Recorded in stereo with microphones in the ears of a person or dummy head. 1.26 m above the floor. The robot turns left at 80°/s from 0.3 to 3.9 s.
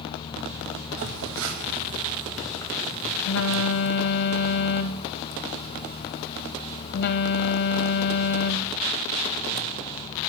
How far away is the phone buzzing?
About 0.9 m.